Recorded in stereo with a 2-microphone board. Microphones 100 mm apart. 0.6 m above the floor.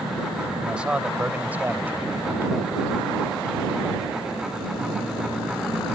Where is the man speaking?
10° right (ahead or behind); by 2.7 s 25° right (ahead or behind).